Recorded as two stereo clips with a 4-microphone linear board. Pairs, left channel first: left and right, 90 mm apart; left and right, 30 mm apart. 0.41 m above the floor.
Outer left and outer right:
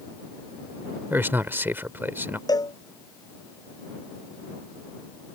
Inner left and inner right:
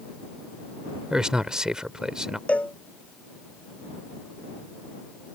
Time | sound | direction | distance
1.1 | a man speaking | 25° right (ahead or behind) | ?
2.5 | a cowbell | 45° left (ahead or behind) | ?